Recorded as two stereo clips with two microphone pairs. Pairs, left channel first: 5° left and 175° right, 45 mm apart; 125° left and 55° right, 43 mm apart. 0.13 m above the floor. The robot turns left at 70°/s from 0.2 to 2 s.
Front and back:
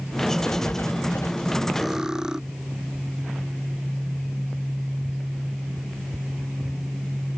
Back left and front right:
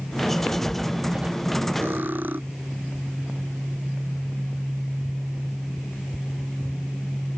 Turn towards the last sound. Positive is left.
turn(degrees=-100)